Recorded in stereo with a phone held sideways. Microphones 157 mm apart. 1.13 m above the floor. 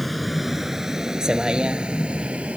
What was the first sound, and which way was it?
A vehicle, centre (ahead or behind).